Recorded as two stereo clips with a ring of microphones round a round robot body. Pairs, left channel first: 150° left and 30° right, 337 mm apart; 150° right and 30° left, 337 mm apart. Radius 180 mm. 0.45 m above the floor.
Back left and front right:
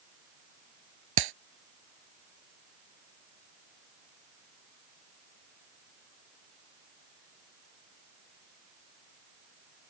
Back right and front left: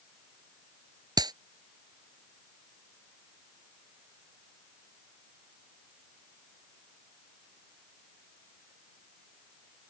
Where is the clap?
50° right.